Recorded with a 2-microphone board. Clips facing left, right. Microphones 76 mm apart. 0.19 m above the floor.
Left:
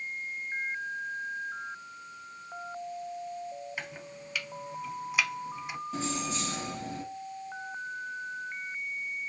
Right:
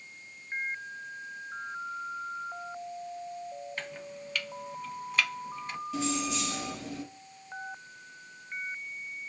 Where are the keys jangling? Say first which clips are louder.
Right 3 dB; 35° left (ahead or behind), 3 m.